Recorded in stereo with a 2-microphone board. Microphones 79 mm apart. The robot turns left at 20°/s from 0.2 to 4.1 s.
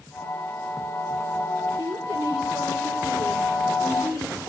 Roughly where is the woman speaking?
Right.